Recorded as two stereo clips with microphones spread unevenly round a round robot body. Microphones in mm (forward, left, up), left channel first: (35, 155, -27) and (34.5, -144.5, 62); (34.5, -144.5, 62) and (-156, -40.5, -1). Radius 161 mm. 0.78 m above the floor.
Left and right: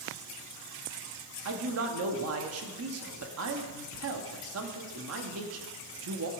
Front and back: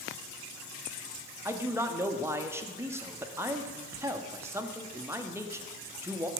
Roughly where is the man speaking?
Behind right.